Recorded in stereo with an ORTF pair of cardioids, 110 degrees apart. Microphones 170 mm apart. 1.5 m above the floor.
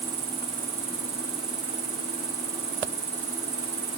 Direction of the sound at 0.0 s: 40° right.